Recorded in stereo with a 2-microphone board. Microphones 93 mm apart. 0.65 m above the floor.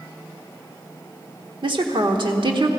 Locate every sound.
1.6 s a woman speaking: 60° right (ahead or behind), 1.3 m